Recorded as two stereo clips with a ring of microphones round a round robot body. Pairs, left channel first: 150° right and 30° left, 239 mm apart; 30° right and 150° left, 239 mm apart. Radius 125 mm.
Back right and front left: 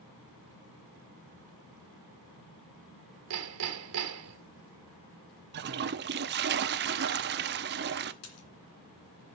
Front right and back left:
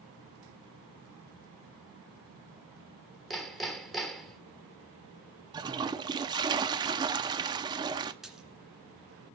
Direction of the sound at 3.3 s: 60° left.